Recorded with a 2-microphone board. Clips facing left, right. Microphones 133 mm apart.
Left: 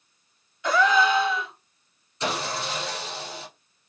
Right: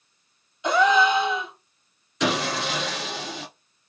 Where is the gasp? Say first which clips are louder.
Right 2 dB; 20° right (ahead or behind), 0.8 m.